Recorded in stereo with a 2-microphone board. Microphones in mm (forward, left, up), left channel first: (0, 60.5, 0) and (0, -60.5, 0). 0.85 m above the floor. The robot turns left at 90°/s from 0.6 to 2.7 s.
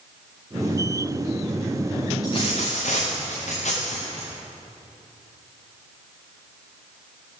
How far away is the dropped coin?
About 6.5 m.